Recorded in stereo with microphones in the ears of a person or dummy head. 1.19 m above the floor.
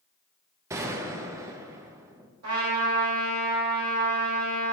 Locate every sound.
0.7 s a gunshot: 15° right (ahead or behind), 0.6 m
2.4 s a trumpet: 85° right, 2 m